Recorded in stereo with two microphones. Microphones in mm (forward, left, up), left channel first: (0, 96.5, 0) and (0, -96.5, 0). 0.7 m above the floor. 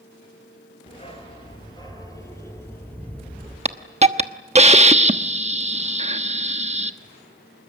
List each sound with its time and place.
0.9 s a dog barking: 30° left (ahead or behind), 4.5 m; by 3.5 s 5° left (ahead or behind), 6 m
3.6 s a hiss: 30° right (ahead or behind), 1.1 m